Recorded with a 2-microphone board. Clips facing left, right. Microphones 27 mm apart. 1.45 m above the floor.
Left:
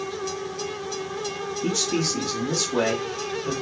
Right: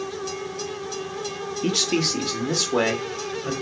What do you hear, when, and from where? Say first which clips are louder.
1.6 s a man speaking: right 3 dB; 60° right (ahead or behind), 0.8 m